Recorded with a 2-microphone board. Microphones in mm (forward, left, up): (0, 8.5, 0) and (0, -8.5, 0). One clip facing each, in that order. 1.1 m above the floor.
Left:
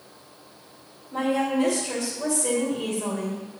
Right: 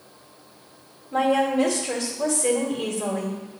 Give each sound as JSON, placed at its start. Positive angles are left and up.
{"t": 1.1, "sound": "a woman speaking", "side_deg": -70, "distance_m": 2.0}